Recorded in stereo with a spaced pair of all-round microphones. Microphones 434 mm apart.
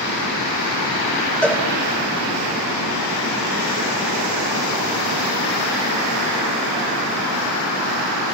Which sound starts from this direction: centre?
A cowbell, at 1.4 s.